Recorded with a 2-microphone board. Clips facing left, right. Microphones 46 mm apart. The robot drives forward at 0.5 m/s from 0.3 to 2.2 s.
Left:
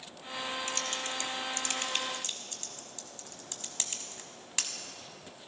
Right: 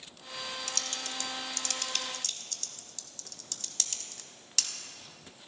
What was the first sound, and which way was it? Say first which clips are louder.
Typing on a keyboard: left 3 dB; 30° left (ahead or behind).